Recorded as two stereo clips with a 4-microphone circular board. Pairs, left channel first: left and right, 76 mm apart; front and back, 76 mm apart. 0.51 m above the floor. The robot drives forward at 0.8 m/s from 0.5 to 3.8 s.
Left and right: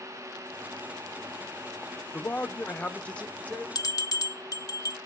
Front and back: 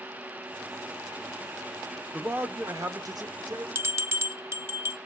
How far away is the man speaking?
About 0.8 m.